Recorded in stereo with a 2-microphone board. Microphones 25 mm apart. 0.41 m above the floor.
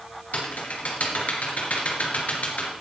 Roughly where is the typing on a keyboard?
Left.